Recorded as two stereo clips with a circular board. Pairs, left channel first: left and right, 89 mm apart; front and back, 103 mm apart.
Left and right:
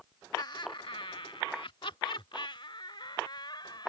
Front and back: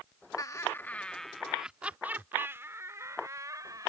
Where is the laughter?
50° left; by 3.9 s 125° left.